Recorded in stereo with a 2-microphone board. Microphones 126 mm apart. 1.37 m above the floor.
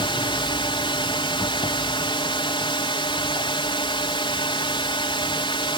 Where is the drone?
40° left (ahead or behind).